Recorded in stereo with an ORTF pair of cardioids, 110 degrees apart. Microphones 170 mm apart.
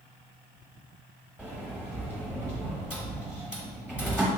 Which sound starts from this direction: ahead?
A sliding door, at 1.4 s.